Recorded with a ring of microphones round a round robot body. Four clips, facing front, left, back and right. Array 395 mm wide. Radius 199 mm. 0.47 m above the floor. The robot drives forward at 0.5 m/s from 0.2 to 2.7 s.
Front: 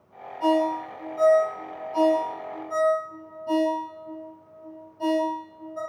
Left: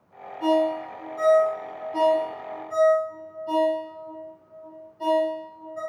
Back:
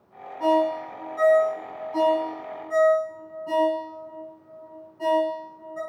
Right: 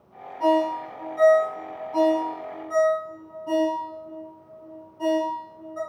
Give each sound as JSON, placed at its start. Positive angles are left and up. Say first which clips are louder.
{"t": 0.4, "sound": "a ringtone", "louder": "right 1 dB, back 1 dB", "azimuth_deg": -105, "distance_m": 1.9}